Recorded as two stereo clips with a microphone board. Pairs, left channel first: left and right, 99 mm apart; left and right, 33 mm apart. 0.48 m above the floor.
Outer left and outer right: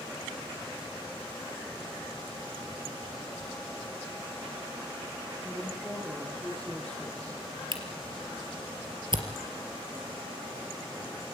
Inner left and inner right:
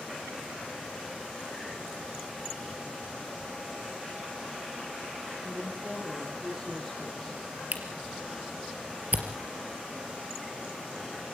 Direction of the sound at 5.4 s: 20° right (ahead or behind).